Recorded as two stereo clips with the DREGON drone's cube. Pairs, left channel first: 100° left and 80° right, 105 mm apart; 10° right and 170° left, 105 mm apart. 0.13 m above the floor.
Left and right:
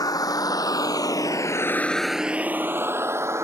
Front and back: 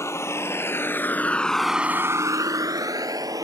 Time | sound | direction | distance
0.0 | a vehicle | 50° left | ?